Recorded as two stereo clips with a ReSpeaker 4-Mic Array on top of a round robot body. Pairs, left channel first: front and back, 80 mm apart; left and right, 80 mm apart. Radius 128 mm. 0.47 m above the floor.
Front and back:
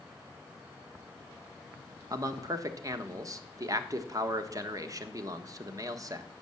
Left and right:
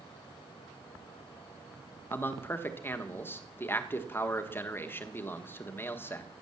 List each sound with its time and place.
2.1 s a man speaking: 145° left, 1.4 m